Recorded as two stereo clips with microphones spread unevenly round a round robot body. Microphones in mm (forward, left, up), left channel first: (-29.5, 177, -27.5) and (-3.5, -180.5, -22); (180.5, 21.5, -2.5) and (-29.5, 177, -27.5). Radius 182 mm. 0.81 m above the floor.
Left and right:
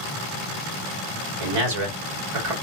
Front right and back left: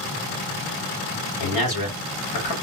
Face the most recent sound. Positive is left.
turn(degrees=-65)